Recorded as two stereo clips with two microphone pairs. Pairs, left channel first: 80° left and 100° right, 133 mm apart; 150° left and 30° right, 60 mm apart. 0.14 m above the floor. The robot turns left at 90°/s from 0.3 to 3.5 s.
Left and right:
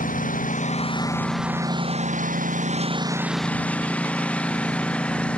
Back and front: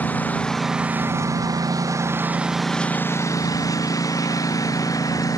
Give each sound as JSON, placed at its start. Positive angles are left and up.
{"t": 0.0, "sound": "a lawn mower", "azimuth_deg": 85}